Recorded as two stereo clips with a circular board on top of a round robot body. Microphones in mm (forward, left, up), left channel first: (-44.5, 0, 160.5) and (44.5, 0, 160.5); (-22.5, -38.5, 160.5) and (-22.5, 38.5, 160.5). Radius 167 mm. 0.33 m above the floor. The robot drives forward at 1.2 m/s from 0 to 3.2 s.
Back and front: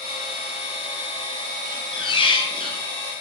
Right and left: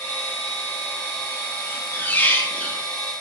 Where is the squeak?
155° right, 6 m; by 2.8 s 160° right, 7.5 m.